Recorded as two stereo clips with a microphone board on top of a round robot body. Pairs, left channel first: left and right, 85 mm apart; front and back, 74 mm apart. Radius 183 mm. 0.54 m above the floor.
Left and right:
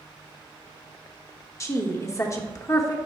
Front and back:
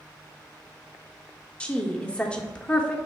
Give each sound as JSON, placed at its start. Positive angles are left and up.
{"t": 1.6, "sound": "a woman speaking", "azimuth_deg": 65, "distance_m": 1.4}